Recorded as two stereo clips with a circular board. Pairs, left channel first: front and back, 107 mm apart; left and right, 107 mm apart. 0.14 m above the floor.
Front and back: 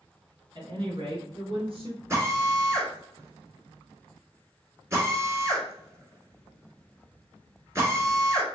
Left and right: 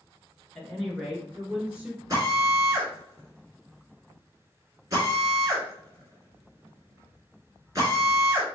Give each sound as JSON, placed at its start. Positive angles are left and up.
{"t": 0.6, "sound": "a woman speaking", "azimuth_deg": 170, "distance_m": 2.0}
{"t": 2.1, "sound": "a drill", "azimuth_deg": -130, "distance_m": 1.8}